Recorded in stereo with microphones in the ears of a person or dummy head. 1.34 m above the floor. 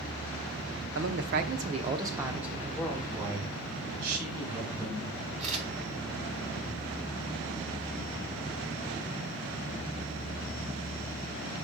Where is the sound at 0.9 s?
60° right (ahead or behind), 0.7 m; by 3.0 s 5° left (ahead or behind), 1.2 m.